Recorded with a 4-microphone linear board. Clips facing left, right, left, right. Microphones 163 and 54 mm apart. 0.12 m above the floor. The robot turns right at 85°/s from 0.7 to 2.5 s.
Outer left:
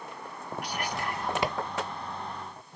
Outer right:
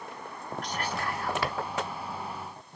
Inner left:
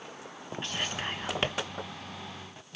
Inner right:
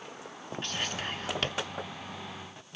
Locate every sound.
0.6 s whispering: 10° left (ahead or behind), 1.1 m; by 1.5 s 20° left (ahead or behind), 1.1 m